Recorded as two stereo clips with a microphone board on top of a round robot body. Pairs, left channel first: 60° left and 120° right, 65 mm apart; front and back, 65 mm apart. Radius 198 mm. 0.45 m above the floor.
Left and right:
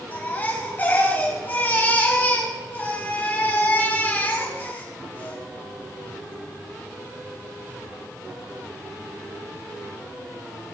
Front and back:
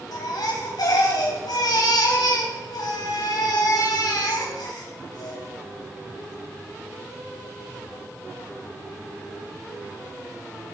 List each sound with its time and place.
0.1 s a baby crying: straight ahead, 3.5 m